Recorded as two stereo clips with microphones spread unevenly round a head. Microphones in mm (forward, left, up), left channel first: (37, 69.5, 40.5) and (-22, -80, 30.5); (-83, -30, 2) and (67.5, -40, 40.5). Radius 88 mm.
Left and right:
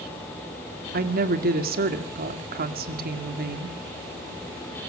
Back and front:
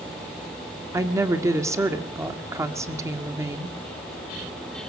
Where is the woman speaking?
80° right, 2 m.